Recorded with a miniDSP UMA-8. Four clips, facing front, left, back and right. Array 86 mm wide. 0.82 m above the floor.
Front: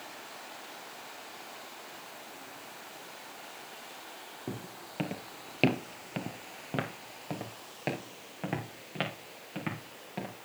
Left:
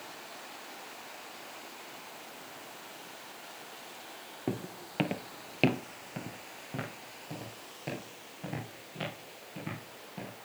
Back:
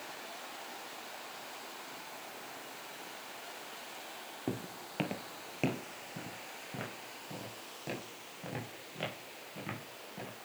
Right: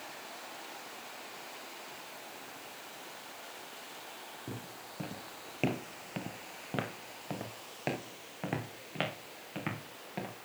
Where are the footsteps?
110° left, 1.6 m; by 10.3 s 50° right, 5.5 m.